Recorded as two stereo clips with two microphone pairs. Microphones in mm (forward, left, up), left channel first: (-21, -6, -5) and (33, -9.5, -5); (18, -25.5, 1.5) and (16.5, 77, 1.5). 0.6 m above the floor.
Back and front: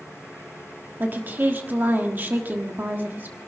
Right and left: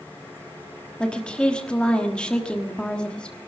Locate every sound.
1.0 s a woman speaking: 15° right, 1.3 m